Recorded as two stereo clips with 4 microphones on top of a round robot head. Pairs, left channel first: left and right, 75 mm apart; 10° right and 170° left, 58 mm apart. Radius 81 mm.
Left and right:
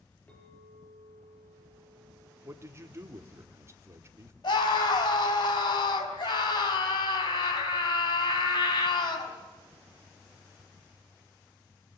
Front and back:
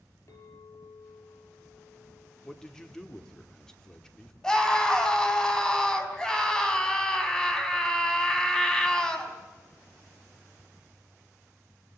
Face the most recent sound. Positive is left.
turn(degrees=70)